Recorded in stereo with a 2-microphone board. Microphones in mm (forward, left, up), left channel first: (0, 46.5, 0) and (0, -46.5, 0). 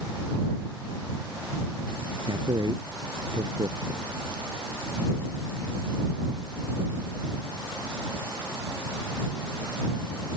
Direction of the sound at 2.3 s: 50° right (ahead or behind).